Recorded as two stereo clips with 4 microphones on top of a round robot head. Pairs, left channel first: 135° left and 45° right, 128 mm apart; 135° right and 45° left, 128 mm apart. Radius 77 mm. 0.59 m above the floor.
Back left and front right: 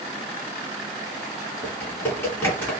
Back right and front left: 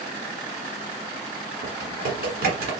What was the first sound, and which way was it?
Typing on a keyboard, 60° left.